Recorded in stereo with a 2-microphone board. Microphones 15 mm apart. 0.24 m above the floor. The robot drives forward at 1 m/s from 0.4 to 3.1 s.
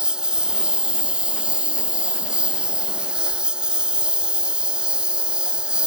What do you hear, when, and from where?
0.0 s a lawn mower: 70° right (ahead or behind); by 5.9 s 60° right (ahead or behind)